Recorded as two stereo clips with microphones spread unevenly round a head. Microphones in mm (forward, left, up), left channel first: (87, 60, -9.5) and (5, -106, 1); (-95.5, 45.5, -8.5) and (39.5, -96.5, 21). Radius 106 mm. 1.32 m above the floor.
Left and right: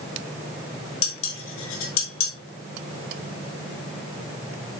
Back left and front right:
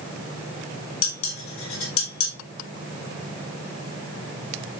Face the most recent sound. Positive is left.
turn(degrees=100)